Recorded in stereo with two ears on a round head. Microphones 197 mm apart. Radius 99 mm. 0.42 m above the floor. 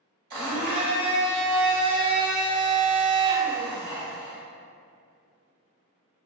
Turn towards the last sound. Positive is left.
turn(degrees=-40)  # may be behind; listen again after turning